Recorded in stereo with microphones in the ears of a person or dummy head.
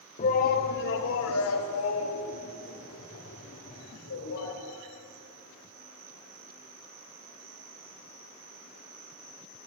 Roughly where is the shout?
Left.